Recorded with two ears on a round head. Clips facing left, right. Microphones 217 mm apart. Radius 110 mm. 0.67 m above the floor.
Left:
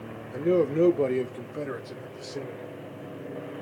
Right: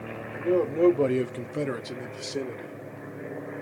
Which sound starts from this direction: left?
A man speaking, at 0.3 s.